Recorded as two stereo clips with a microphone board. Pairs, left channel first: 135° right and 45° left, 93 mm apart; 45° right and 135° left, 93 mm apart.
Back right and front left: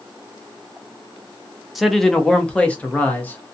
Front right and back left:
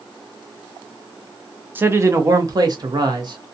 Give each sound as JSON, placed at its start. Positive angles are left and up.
{"t": 1.8, "sound": "a man speaking", "azimuth_deg": 130, "distance_m": 0.6}